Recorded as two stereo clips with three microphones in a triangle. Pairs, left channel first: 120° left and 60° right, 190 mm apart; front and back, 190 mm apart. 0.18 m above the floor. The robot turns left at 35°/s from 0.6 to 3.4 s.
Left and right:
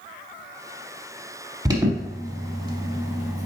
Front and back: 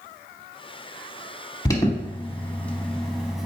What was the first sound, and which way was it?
An alarm, 35° right.